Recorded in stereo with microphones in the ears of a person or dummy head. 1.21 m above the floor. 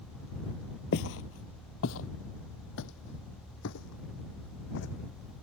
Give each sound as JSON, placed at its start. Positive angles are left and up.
{"t": 0.9, "sound": "footsteps", "side_deg": 55}